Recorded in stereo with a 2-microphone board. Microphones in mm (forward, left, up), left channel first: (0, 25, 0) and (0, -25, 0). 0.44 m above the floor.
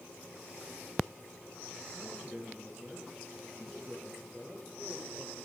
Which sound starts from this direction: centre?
A man speaking, at 1.9 s.